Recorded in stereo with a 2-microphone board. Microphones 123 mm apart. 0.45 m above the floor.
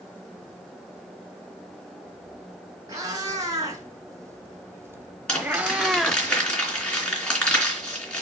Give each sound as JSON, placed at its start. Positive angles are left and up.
{"t": 2.9, "sound": "a cat meowing", "side_deg": -30, "distance_m": 2.5}
{"t": 5.3, "sound": "crumpling", "side_deg": 5, "distance_m": 3.0}